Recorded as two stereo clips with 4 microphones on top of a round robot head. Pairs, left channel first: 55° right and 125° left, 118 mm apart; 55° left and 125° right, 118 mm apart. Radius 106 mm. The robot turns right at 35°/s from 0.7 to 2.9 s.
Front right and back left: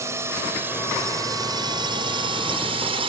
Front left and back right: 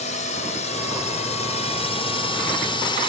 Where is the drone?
60° left; by 3.1 s 95° left.